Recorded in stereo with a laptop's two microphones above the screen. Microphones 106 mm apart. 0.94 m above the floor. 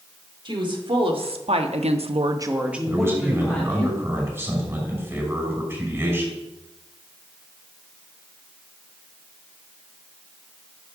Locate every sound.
0.5 s a woman speaking: 50° right (ahead or behind), 2.5 m; by 3.9 s 15° left (ahead or behind), 2.5 m
2.9 s a man speaking: 25° right (ahead or behind), 5.5 m